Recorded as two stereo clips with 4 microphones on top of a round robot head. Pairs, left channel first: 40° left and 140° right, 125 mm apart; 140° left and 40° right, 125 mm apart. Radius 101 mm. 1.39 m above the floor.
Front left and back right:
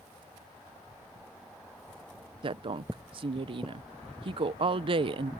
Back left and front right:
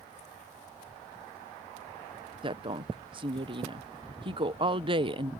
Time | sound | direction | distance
2.4 | a woman speaking | 90° right | ?